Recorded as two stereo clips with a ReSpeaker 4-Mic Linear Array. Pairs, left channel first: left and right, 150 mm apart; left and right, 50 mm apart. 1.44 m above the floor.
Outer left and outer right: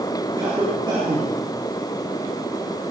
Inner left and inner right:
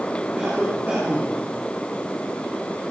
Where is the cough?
35° right (ahead or behind), 4 m.